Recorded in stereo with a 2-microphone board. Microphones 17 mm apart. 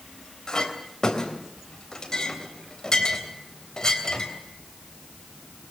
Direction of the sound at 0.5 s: 40° left (ahead or behind).